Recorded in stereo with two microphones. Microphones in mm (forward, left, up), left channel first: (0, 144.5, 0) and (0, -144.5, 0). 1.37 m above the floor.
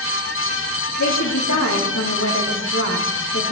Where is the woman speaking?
65° left (ahead or behind), 3 m.